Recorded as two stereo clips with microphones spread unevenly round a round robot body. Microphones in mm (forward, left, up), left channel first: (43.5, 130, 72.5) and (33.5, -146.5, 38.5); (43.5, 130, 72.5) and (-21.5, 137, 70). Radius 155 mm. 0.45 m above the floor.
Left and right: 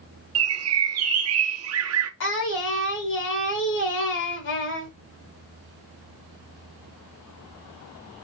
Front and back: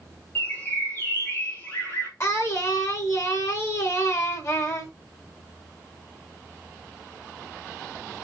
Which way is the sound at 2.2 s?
40° left.